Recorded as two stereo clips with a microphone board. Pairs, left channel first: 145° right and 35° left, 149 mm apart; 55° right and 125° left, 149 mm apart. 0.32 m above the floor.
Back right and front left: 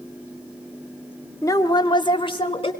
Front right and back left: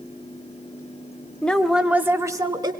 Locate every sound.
1.4 s a woman speaking: 120° right, 1.0 m; by 2.7 s 175° left, 1.4 m